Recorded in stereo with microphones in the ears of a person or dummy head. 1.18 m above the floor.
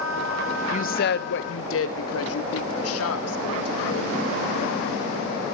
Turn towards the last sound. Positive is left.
turn(degrees=80)